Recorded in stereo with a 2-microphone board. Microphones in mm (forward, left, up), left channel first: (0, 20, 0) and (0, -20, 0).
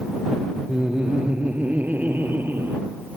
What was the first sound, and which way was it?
Laughter, 20° right (ahead or behind).